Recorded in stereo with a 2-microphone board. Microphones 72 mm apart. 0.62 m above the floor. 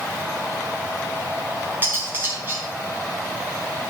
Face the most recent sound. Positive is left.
turn(degrees=-30)  # may be behind; listen again after turning